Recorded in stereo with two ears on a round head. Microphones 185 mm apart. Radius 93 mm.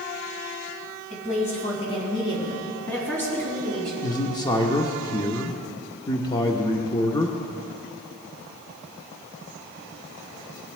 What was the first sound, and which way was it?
A woman speaking, 35° left (ahead or behind).